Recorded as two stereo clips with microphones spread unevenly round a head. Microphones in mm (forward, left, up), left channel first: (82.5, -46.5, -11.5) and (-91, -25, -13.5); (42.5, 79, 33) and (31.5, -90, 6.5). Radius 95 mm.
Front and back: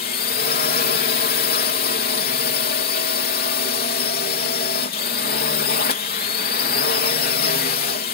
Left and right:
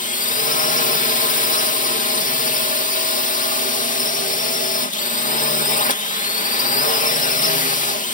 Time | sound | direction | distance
0.0 | a drone | 40° left | ?